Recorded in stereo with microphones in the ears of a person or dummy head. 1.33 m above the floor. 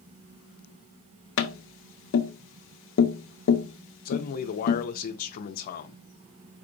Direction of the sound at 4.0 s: 45° left (ahead or behind).